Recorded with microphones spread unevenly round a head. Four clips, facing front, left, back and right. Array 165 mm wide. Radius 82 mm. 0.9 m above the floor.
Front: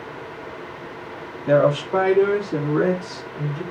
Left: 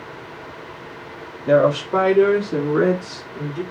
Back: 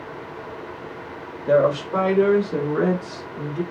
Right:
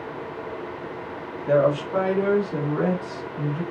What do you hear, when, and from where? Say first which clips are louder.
1.5 s a woman speaking: left 4 dB, front 1 dB; 45° left, 2.5 m; by 3.6 s 85° left, 2.5 m